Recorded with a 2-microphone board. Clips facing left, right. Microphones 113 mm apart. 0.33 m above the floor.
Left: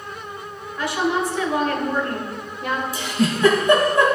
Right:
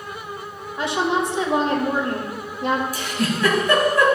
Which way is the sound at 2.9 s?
25° left (ahead or behind).